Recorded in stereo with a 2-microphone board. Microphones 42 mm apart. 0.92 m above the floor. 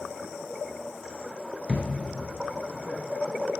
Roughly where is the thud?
Right.